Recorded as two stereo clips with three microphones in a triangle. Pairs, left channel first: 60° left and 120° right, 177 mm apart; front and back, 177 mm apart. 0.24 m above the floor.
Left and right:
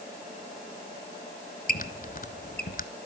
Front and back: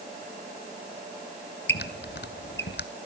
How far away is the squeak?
About 0.9 m.